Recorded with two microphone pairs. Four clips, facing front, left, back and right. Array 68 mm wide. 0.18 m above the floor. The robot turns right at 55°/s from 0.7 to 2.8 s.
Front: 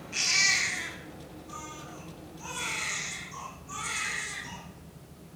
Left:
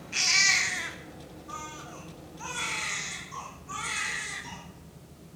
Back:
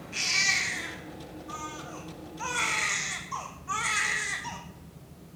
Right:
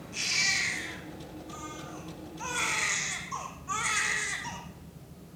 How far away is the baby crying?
About 4 m.